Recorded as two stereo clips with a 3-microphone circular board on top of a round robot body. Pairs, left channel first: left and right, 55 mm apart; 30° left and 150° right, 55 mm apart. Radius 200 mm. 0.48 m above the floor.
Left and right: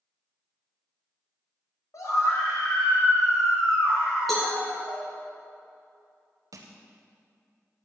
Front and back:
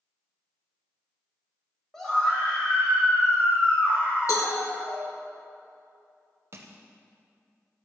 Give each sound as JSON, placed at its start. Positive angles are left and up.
{"t": 1.9, "sound": "a scream", "azimuth_deg": 110, "distance_m": 3.5}
{"t": 4.3, "sound": "a cowbell", "azimuth_deg": 0, "distance_m": 0.7}
{"t": 6.5, "sound": "crushing", "azimuth_deg": -105, "distance_m": 0.6}